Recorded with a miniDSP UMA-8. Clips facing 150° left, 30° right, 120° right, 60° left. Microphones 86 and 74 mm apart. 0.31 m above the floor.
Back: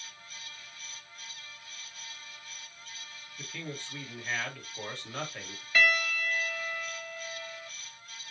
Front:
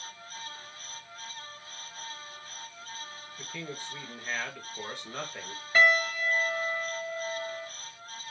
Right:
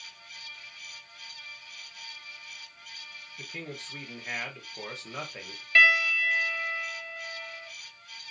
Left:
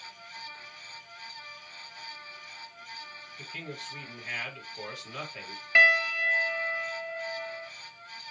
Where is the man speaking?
90° right, 1.1 m.